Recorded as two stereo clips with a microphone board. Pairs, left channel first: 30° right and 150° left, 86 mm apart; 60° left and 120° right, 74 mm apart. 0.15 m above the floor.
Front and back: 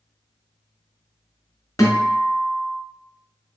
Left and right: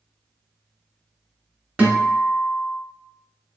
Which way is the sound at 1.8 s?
55° right.